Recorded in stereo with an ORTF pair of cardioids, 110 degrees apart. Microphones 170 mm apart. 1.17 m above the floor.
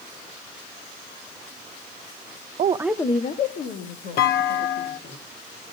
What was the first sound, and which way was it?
A woman speaking, 50° right.